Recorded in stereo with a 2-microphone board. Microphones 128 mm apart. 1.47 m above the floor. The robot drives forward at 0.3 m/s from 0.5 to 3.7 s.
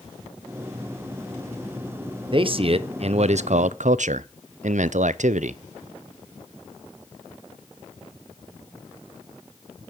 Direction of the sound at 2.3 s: 40° right (ahead or behind).